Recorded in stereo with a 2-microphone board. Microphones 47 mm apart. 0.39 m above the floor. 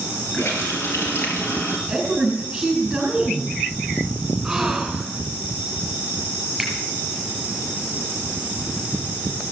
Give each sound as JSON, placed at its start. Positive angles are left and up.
{"t": 0.3, "sound": "a running tap", "side_deg": 60, "distance_m": 5.5}
{"t": 1.9, "sound": "a woman speaking", "side_deg": -10, "distance_m": 4.0}
{"t": 4.4, "sound": "a gasp", "side_deg": -10, "distance_m": 4.0}
{"t": 6.6, "sound": "a finger snap", "side_deg": 0, "distance_m": 7.5}